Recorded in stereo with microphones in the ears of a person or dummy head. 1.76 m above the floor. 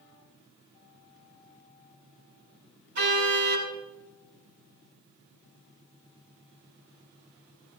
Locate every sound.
3.0 s a car horn: 55° right (ahead or behind), 8 m